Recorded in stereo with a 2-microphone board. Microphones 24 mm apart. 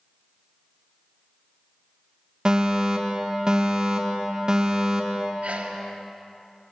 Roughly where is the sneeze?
Right.